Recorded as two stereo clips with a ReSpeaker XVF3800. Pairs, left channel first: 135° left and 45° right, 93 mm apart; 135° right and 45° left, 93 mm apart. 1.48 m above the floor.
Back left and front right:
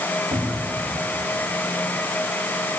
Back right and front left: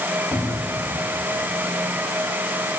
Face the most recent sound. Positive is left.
turn(degrees=-30)